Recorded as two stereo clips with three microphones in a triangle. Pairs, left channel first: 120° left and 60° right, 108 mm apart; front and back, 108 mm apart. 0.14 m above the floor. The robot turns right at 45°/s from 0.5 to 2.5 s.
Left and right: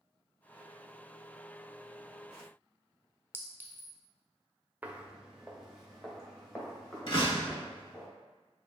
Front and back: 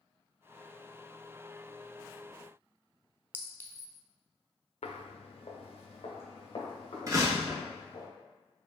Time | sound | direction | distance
3.3 | a clink | 35° right | 0.6 m
4.8 | footsteps | 15° left | 0.7 m
7.1 | a door slam | 130° left | 1.6 m